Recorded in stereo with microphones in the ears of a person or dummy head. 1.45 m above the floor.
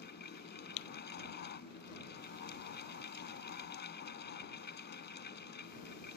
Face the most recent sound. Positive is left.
turn(degrees=50)  # may be behind; listen again after turning